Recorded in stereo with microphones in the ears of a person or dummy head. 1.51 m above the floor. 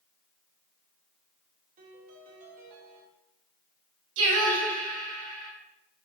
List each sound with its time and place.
1.8 s a piano: 45° right (ahead or behind), 2.0 m
4.2 s singing: 75° right (ahead or behind), 2.5 m